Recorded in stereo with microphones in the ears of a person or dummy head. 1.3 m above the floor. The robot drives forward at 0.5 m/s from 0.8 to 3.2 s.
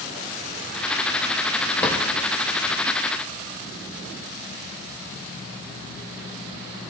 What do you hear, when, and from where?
1.8 s a drawer: 5° left (ahead or behind), 2 m